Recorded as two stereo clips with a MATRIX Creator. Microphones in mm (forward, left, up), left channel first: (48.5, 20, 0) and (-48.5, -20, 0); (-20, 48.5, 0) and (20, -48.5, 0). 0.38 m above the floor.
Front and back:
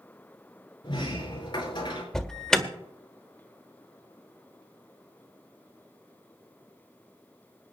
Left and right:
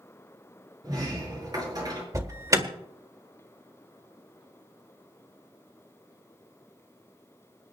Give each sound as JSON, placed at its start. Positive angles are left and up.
{"t": 0.8, "sound": "a sliding door", "azimuth_deg": -15, "distance_m": 5.0}
{"t": 2.1, "sound": "an alarm", "azimuth_deg": -55, "distance_m": 1.5}